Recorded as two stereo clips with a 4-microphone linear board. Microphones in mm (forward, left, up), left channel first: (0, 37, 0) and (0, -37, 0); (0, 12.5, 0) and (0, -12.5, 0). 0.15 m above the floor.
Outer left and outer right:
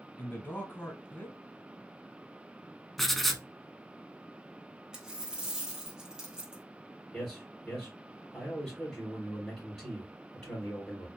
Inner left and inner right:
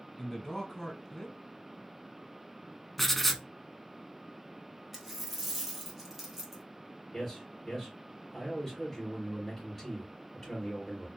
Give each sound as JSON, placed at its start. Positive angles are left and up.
{"t": 0.2, "sound": "a man speaking", "side_deg": 25, "distance_m": 1.2}
{"t": 3.0, "sound": "writing", "side_deg": 0, "distance_m": 0.5}
{"t": 4.9, "sound": "a dropped coin", "side_deg": -10, "distance_m": 1.5}
{"t": 7.1, "sound": "a man speaking", "side_deg": 10, "distance_m": 3.0}